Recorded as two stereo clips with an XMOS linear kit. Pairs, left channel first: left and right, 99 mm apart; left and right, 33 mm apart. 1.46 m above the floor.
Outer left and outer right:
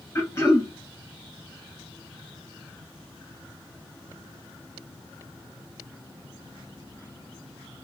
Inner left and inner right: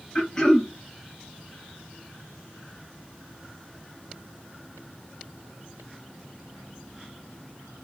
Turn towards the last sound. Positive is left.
turn(degrees=30)  # may be behind; listen again after turning